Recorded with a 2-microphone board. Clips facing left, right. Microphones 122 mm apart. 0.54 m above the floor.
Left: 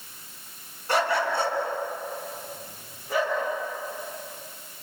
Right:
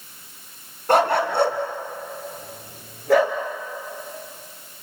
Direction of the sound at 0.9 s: 55° right (ahead or behind).